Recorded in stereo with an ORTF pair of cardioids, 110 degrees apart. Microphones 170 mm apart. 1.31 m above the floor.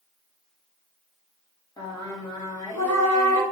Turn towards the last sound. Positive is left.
turn(degrees=25)